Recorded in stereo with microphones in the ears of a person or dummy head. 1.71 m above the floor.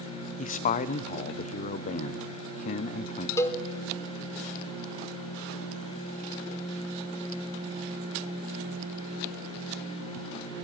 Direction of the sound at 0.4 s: 40° left (ahead or behind).